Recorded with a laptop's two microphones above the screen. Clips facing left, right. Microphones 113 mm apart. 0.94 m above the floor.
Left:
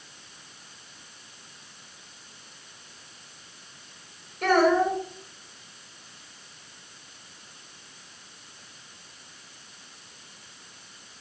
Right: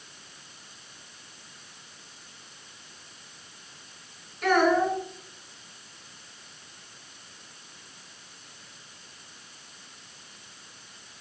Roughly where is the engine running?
No engine running in this recording.